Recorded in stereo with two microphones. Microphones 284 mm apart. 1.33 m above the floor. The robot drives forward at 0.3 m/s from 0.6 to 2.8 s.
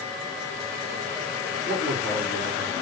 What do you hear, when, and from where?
1.6 s a man speaking: 35° left (ahead or behind), 5 m